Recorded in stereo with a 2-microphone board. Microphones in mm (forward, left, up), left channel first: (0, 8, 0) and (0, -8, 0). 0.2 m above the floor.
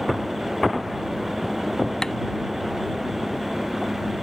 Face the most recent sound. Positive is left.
turn(degrees=40)  # may be behind; listen again after turning